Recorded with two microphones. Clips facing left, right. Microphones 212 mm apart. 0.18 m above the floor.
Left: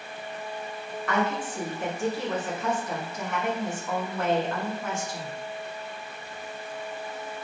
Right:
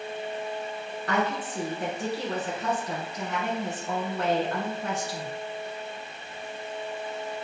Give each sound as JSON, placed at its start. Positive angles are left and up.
{"t": 1.1, "sound": "a woman speaking", "side_deg": -40, "distance_m": 1.4}